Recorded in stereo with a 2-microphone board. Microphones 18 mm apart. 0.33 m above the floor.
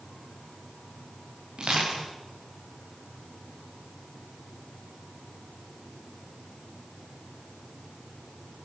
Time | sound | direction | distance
1.6 | crushing | 80° right | 7 m